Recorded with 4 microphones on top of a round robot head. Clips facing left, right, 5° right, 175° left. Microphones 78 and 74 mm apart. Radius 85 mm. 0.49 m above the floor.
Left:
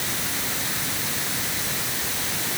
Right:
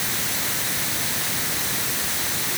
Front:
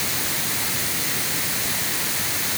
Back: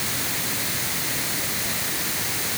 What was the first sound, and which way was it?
Only background noise.